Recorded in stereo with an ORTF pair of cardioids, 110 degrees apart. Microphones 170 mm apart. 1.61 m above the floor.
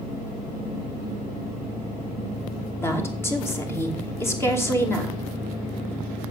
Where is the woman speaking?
15° left, 2.5 m.